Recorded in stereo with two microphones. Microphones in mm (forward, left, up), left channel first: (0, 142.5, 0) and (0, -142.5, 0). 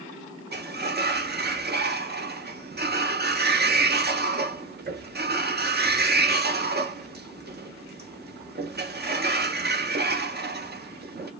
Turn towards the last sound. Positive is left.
turn(degrees=-35)  # may be behind; listen again after turning